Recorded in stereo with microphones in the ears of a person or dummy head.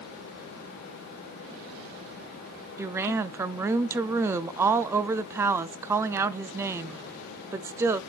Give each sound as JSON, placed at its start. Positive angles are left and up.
{"t": 2.8, "sound": "a woman speaking", "side_deg": -15, "distance_m": 0.5}